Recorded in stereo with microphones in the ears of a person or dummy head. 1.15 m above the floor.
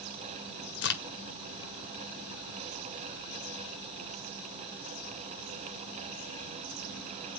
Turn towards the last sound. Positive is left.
turn(degrees=50)  # may be behind; listen again after turning